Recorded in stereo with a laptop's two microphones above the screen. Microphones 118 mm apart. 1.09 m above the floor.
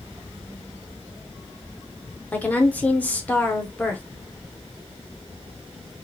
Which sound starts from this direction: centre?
A woman speaking, at 2.3 s.